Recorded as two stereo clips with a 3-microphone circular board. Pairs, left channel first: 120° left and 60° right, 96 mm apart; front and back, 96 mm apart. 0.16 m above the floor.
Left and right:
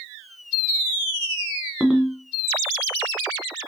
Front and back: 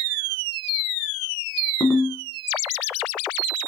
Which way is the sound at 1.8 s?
15° left.